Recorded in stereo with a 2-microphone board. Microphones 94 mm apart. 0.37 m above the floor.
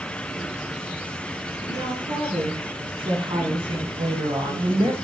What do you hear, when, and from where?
1.7 s a woman speaking: 75° right (ahead or behind), 6 m; by 5.0 s 45° right (ahead or behind), 2.0 m